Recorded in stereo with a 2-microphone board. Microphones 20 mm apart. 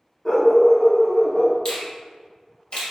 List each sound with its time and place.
0.2 s a dog barking: 15° left (ahead or behind), 1.6 m
1.6 s a finger snap: 40° left (ahead or behind), 1.7 m